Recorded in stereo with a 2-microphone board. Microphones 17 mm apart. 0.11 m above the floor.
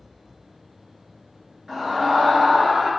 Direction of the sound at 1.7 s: 30° right (ahead or behind).